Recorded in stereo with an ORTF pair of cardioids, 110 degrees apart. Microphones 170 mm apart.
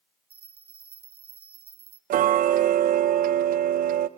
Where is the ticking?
60° right, 0.6 m.